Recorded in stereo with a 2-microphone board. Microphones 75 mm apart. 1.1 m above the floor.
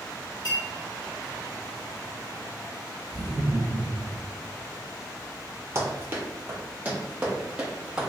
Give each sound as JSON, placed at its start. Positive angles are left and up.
{"t": 0.5, "sound": "a clink", "side_deg": 70, "distance_m": 1.9}
{"t": 3.1, "sound": "laughter", "side_deg": -65, "distance_m": 0.8}
{"t": 5.8, "sound": "running footsteps", "side_deg": -35, "distance_m": 1.4}